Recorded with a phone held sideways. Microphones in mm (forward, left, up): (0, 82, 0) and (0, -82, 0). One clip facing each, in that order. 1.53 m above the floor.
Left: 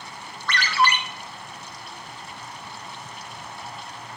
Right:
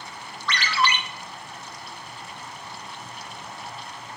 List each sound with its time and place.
0.5 s a ringtone: 50° left (ahead or behind), 0.8 m